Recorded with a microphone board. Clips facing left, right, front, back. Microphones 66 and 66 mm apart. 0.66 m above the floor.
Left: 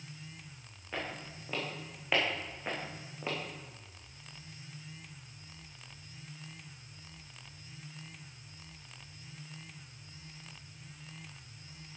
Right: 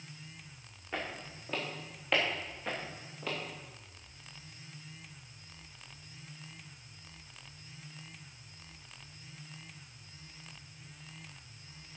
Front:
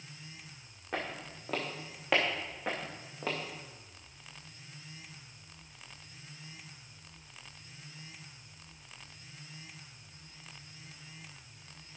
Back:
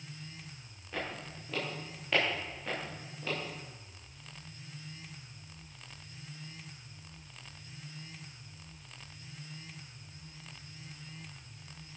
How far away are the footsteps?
About 4 m.